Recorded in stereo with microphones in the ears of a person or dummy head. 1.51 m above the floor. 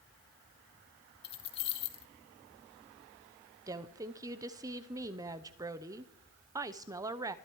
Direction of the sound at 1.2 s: 30° left (ahead or behind).